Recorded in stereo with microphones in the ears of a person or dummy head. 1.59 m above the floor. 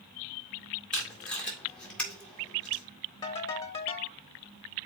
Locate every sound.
0.9 s tape being pulled: 5° left (ahead or behind), 1.8 m
3.2 s a ringtone: 25° left (ahead or behind), 0.8 m